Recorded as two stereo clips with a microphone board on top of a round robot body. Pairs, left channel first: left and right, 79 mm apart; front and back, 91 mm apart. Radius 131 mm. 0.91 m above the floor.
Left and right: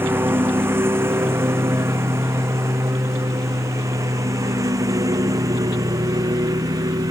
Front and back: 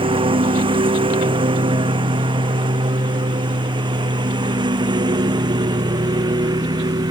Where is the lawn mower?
155° right; by 7.1 s 135° right.